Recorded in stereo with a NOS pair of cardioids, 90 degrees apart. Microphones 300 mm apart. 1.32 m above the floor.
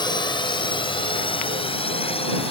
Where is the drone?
15° left; by 2.5 s 20° left.